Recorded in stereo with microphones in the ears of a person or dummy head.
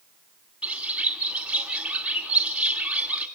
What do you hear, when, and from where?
0.6 s a bird: 10° right (ahead or behind), 1.7 m